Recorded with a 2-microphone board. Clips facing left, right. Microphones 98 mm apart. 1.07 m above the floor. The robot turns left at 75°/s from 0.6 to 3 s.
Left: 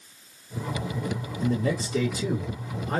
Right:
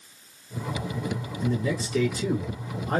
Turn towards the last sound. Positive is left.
turn(degrees=-55)